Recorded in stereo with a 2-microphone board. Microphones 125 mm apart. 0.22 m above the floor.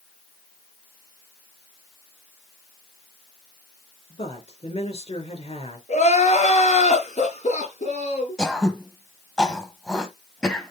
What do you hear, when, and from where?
4.1 s a woman speaking: 55° left (ahead or behind), 3.5 m
5.9 s crying: 70° left (ahead or behind), 4.5 m
8.4 s throat clearing: 5° left (ahead or behind), 1.7 m